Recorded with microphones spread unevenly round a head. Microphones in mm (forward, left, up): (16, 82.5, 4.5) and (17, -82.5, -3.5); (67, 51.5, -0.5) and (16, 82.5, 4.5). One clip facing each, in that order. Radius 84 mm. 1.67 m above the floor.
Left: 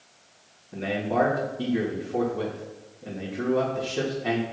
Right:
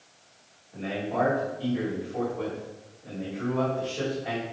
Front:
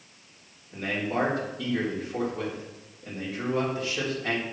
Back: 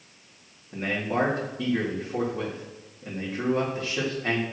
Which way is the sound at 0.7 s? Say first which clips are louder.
Left 4 dB, back 2 dB; 95° left.